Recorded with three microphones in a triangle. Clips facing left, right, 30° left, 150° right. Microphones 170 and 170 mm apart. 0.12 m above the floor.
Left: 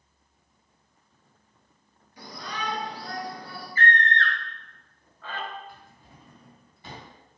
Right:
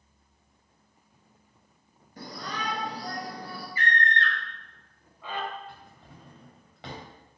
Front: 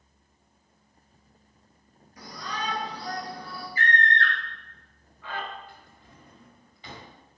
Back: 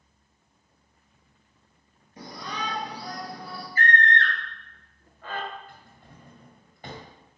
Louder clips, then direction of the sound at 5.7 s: Right 1 dB, back 1 dB; 105° right.